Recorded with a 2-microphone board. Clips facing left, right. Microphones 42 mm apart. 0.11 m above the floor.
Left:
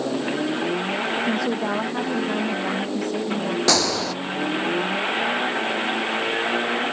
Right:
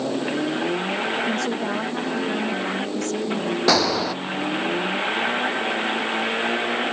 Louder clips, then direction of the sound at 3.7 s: Right 3 dB; 10° right (ahead or behind).